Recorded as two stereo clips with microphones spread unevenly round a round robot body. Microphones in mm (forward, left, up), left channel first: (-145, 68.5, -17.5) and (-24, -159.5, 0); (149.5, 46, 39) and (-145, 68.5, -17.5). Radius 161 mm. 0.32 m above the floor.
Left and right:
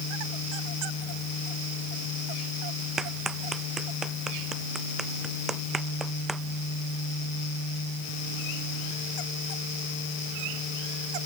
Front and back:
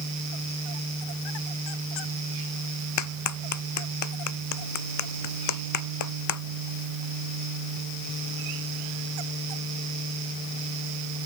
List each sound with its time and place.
3.0 s a clap: 25° left